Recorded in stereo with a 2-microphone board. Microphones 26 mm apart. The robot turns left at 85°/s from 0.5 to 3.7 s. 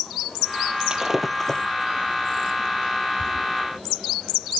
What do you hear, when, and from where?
0.9 s breaking glass: 30° right (ahead or behind); by 1.7 s 35° left (ahead or behind)